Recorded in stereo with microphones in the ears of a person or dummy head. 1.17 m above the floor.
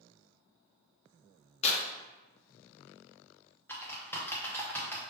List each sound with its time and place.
1.6 s tearing paper: 35° left (ahead or behind), 0.8 m
3.7 s typing on a keyboard: 15° left (ahead or behind), 0.8 m